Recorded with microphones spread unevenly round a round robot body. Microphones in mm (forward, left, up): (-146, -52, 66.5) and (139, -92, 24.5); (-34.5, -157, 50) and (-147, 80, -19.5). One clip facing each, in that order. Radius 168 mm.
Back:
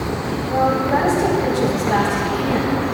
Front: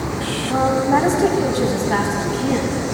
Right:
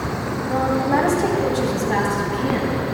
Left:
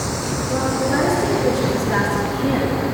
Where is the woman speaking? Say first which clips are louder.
Front 2 dB, right 1 dB; 30° right, 3.5 m; by 2.7 s 85° right, 4 m.